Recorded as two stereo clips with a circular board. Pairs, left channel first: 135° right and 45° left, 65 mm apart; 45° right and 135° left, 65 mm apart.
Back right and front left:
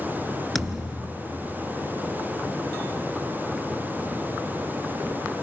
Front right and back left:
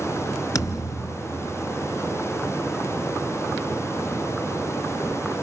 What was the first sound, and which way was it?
A thud, 45° right.